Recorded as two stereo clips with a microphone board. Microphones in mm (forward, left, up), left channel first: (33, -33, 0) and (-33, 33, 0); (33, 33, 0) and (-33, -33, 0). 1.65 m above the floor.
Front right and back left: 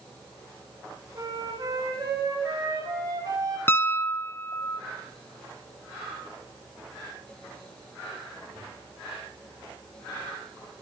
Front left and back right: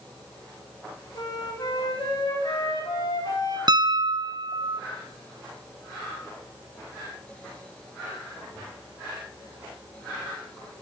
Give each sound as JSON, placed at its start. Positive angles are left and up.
{"t": 1.1, "sound": "a flute", "azimuth_deg": 85, "distance_m": 2.5}
{"t": 3.7, "sound": "a piano", "azimuth_deg": -105, "distance_m": 0.6}